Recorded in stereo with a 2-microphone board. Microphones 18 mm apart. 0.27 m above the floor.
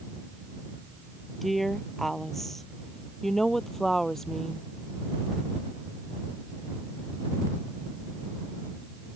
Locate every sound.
1.4 s a woman speaking: 15° left (ahead or behind); by 4.7 s 25° left (ahead or behind)